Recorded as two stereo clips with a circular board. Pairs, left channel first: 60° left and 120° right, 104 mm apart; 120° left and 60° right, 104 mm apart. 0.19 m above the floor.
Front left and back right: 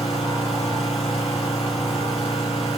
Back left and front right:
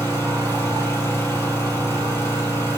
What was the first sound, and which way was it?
An engine running, 55° left.